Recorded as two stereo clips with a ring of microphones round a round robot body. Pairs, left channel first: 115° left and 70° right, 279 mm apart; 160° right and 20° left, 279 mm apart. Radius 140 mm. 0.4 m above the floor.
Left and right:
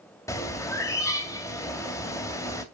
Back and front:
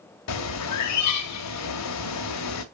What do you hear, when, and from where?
0.3 s a bird: 170° right, 2.5 m